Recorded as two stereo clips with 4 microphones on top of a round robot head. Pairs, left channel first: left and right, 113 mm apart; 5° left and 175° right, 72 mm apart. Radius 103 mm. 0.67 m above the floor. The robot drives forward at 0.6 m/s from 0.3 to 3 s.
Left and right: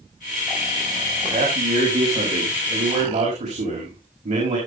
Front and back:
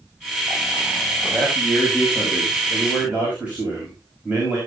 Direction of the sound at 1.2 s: 95° right.